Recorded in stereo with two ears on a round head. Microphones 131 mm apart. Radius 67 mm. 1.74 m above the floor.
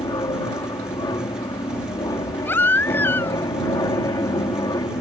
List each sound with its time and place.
0.0 s an aircraft: 25° left (ahead or behind)
2.5 s a baby crying: 15° left (ahead or behind)